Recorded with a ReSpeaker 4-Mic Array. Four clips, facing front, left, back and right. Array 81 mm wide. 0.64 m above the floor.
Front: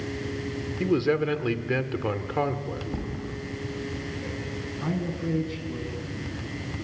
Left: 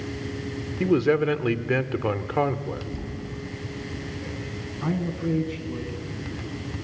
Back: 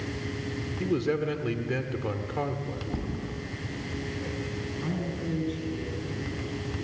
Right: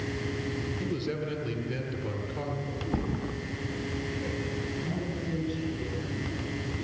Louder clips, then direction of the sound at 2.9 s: Right 3 dB, front 1 dB; 90° right.